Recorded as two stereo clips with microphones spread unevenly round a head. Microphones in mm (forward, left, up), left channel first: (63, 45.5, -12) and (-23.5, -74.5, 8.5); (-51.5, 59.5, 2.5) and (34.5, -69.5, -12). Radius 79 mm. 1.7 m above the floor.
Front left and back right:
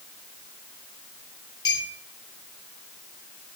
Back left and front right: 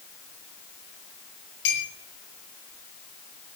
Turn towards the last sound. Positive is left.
turn(degrees=125)